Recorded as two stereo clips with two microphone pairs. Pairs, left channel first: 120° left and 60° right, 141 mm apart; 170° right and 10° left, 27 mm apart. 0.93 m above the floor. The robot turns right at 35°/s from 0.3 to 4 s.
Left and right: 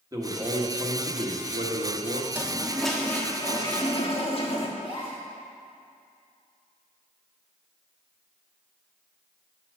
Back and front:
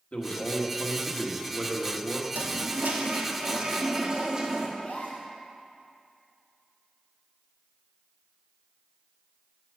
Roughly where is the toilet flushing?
Ahead.